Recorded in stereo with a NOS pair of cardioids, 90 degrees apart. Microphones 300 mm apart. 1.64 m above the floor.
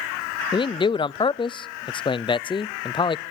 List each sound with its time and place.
0.5 s a man speaking: 15° left, 0.5 m